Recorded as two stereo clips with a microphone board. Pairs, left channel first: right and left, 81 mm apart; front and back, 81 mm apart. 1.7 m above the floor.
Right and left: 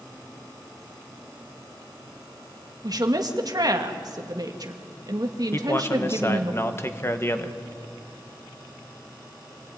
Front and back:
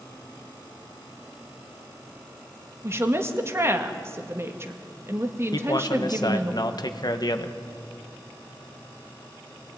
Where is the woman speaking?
125° left, 1.9 m.